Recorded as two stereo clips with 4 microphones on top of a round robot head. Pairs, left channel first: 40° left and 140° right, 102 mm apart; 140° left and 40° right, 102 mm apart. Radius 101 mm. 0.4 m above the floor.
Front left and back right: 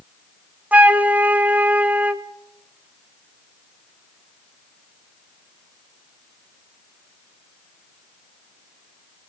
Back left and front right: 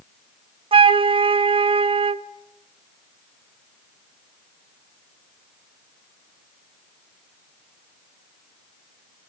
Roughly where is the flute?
Ahead right.